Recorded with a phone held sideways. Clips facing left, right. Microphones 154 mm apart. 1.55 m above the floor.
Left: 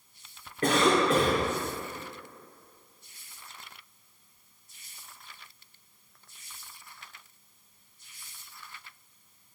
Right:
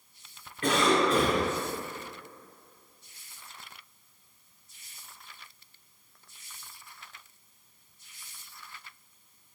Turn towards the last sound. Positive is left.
turn(degrees=40)  # may be behind; listen again after turning